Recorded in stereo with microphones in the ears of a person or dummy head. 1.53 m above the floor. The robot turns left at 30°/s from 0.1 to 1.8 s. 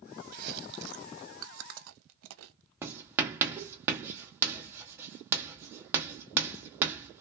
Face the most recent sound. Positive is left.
turn(degrees=-15)  # may be behind; listen again after turning